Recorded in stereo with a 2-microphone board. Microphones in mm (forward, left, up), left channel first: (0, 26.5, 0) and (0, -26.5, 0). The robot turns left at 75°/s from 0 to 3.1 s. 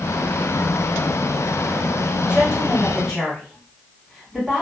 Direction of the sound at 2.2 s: 65° left.